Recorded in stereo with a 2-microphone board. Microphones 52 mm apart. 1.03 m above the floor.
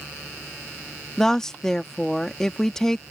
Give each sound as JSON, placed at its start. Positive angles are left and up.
{"t": 1.2, "sound": "a woman speaking", "side_deg": 10}